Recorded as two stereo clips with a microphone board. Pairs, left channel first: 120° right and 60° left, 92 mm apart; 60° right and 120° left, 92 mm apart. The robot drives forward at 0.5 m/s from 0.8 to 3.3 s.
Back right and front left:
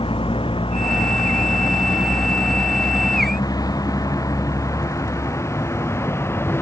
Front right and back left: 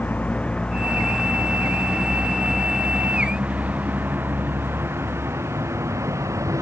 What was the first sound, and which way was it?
A vehicle, 135° right.